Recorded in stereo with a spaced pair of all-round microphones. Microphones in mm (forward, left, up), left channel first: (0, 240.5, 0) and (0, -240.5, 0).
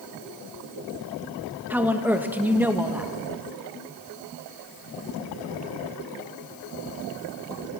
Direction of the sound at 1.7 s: 5° right (ahead or behind).